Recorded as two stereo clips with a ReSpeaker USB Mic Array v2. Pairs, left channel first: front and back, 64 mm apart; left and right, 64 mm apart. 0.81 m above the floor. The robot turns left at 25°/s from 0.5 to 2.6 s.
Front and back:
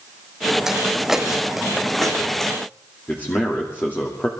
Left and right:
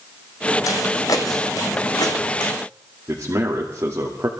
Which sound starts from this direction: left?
Footsteps, at 0.7 s.